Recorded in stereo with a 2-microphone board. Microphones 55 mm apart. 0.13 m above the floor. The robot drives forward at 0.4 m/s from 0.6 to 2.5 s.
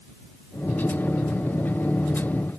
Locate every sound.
Only background noise.